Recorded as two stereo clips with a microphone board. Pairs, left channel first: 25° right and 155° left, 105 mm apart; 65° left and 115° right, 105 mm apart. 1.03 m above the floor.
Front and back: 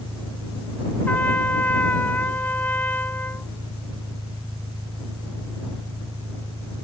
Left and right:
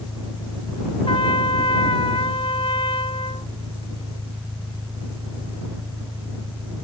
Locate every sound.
0.0 s an engine running: 165° left
1.1 s a trumpet: 50° left